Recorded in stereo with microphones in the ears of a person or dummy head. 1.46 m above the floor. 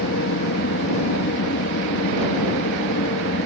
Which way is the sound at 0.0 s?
65° left (ahead or behind).